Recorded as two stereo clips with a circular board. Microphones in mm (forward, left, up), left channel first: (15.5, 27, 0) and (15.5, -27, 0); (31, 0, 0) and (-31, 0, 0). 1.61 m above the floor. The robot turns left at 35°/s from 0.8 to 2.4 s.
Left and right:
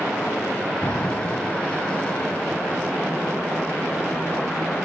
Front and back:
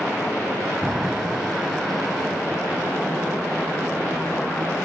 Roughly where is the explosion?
Behind left.